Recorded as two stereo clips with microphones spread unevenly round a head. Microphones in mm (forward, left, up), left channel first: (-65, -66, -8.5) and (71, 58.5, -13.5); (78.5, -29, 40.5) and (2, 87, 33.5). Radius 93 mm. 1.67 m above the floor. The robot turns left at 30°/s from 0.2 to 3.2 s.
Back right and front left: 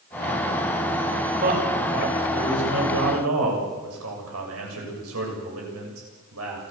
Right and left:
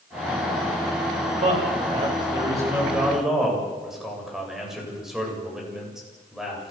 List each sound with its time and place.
1.4 s a man speaking: 90° left, 8 m; by 6.7 s 35° left, 8 m